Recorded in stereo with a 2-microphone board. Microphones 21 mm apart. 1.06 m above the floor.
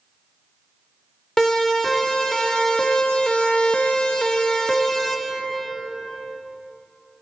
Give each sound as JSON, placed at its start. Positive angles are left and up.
{"t": 1.4, "sound": "a siren", "side_deg": 30, "distance_m": 4.0}